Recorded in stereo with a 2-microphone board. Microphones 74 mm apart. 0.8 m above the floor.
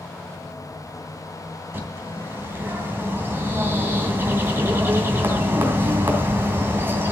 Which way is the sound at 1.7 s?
30° right (ahead or behind).